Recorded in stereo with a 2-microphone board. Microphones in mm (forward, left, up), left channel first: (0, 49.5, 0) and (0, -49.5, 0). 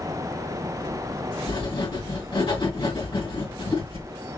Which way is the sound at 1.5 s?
60° left (ahead or behind).